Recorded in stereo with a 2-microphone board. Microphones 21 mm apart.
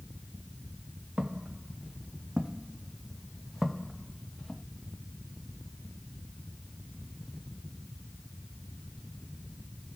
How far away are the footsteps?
About 1.7 m.